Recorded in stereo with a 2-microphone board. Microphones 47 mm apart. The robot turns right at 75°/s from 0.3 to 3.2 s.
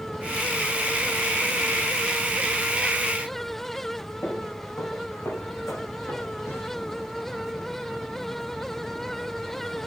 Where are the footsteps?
80° left, 6 m; by 6.7 s 85° left, 5.5 m.